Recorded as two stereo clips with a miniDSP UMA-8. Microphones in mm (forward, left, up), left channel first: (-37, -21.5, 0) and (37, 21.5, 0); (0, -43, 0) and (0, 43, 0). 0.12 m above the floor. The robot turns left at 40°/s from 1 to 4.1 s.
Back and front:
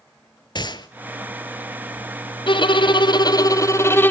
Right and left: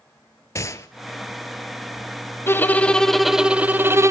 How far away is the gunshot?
About 0.7 m.